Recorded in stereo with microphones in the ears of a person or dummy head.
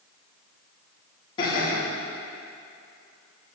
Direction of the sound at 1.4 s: 25° left (ahead or behind).